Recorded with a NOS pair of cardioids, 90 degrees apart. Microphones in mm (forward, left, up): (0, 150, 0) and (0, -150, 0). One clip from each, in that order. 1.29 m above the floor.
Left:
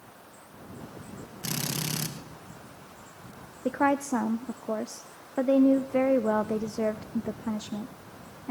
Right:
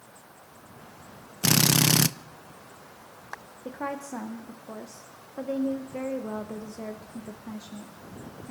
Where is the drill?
60° right, 0.9 m.